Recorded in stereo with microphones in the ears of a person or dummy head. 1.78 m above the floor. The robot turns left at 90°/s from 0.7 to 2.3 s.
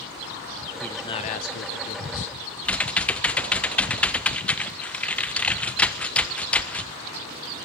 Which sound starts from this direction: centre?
Typing on a keyboard, at 2.6 s.